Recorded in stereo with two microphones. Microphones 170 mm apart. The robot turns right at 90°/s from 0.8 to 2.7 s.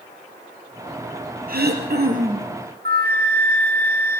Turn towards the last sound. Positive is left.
turn(degrees=-70)  # may be behind; listen again after turning